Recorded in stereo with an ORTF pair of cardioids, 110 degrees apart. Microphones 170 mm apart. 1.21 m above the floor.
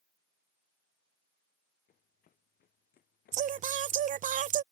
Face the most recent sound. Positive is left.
turn(degrees=-45)